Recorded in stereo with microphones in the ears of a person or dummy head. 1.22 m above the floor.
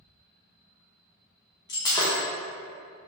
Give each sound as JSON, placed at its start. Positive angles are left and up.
{"t": 1.7, "sound": "breaking glass", "side_deg": 20, "distance_m": 0.5}